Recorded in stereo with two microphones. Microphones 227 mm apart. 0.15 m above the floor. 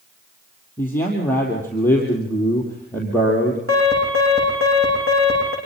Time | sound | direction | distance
0.8 | a man speaking | 10° left (ahead or behind) | 4.5 m
3.7 | an alarm | 75° right (ahead or behind) | 10 m